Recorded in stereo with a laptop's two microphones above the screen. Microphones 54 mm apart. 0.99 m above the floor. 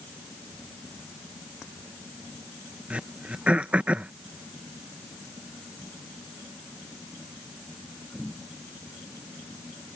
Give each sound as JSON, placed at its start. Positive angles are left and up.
{"t": 2.9, "sound": "throat clearing", "side_deg": -25}